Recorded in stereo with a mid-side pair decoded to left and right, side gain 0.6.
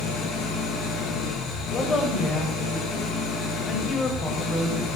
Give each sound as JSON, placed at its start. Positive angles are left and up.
{"t": 0.0, "sound": "an engine running", "azimuth_deg": 55, "distance_m": 8.5}
{"t": 1.7, "sound": "a woman speaking", "azimuth_deg": 35, "distance_m": 7.0}